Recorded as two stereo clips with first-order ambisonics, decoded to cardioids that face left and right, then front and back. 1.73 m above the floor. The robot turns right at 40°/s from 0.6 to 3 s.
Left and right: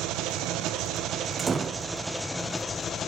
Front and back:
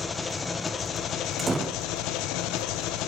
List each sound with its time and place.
0.0 s an engine running: 70° right, 1.0 m; by 3.1 s 25° left, 1.0 m
1.4 s a door slam: 120° right, 0.7 m; by 1.9 s 100° right, 0.7 m